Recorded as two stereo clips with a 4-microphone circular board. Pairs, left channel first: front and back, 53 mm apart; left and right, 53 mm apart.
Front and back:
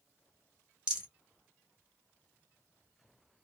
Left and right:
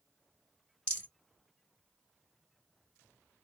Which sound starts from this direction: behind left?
A rattle, at 0.9 s.